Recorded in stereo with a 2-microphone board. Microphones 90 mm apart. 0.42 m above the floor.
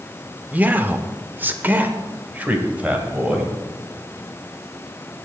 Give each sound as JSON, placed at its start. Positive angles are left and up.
{"t": 0.5, "sound": "a man speaking", "side_deg": -20, "distance_m": 0.8}